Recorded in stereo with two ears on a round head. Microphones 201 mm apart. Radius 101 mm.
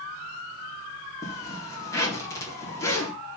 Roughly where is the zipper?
Centre.